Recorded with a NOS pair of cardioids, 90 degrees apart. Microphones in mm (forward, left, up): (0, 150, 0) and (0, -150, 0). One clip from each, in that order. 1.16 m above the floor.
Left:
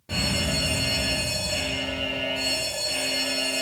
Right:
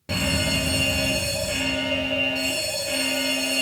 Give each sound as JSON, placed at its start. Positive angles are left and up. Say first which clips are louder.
{"t": 0.1, "sound": "an alarm", "louder": "right 2 dB", "azimuth_deg": -55, "distance_m": 2.5}